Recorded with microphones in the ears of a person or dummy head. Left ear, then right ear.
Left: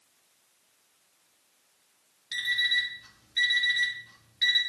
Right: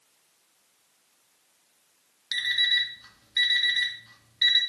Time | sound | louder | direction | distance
2.3 | an alarm clock | right 2 dB | 20° right (ahead or behind) | 1.7 m